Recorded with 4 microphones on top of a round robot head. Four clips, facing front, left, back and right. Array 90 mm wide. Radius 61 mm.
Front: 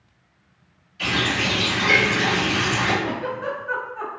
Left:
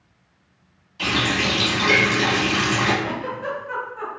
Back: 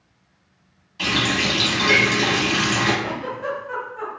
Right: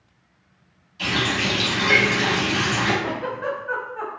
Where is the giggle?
65° right, 1.0 m.